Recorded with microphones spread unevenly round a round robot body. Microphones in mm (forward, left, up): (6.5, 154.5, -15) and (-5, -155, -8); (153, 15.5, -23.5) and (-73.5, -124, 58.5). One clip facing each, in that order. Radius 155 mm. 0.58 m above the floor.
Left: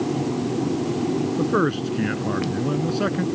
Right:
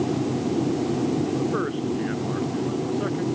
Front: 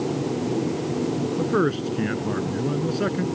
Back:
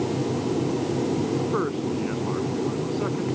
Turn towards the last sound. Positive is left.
turn(degrees=75)